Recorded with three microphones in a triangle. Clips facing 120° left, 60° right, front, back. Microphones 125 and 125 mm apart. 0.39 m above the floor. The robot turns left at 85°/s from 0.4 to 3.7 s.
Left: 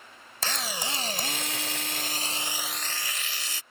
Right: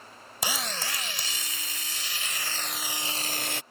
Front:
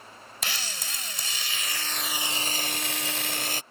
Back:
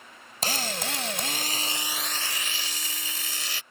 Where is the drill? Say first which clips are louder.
Even, back 8 dB; 135° right; by 3.6 s 45° right.